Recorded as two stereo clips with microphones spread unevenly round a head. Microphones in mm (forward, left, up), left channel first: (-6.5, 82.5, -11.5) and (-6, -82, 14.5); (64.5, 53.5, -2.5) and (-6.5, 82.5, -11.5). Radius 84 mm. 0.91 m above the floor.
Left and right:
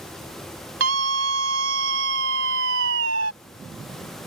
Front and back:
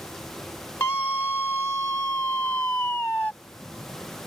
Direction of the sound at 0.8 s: 95° right.